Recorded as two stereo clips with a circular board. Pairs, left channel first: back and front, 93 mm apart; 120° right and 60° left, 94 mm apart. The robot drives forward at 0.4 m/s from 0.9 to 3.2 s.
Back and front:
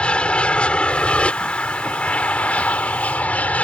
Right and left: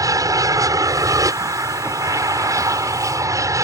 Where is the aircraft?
105° left.